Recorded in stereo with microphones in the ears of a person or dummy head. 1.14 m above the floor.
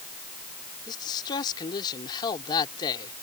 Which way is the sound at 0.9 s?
25° left (ahead or behind).